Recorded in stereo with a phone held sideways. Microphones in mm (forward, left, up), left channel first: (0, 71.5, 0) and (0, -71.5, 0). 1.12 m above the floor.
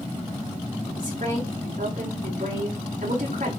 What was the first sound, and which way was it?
A woman speaking, 60° right (ahead or behind).